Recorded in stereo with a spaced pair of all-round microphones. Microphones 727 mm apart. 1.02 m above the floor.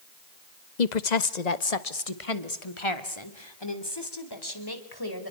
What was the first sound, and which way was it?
A woman speaking, 70° left (ahead or behind).